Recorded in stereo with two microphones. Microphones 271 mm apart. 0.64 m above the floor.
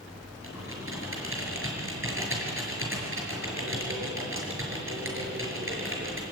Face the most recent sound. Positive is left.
turn(degrees=-50)  # may be behind; listen again after turning